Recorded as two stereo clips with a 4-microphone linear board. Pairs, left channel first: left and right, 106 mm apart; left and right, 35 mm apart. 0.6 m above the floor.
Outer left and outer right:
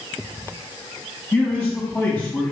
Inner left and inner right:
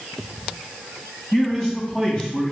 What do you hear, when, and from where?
1.3 s a man speaking: 25° left (ahead or behind), 3 m